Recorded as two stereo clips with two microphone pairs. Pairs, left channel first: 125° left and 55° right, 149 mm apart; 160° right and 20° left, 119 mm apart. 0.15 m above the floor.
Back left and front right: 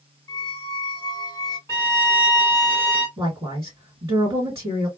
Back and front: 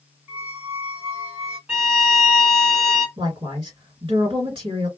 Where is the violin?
75° left, 1.8 m.